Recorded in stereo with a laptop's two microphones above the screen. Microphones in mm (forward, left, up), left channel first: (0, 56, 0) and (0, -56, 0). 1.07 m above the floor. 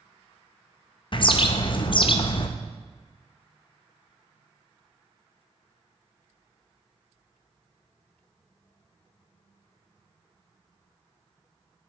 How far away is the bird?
About 0.5 m.